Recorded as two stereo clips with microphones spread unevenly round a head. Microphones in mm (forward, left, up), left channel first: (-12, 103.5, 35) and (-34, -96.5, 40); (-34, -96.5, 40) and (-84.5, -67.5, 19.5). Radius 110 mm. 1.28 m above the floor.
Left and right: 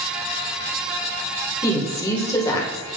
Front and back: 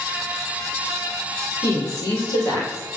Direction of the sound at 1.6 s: 10° left.